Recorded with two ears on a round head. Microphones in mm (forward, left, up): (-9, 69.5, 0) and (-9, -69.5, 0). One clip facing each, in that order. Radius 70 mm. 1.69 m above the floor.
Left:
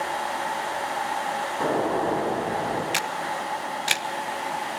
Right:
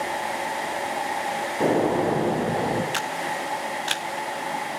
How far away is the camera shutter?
About 1.1 m.